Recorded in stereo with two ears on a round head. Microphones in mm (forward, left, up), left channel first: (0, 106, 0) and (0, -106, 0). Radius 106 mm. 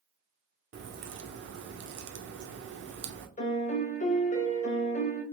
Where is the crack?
50° right (ahead or behind), 0.7 m.